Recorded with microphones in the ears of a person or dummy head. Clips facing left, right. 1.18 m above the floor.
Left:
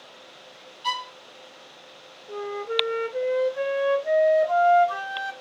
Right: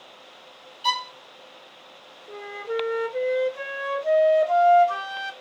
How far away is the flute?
About 0.7 m.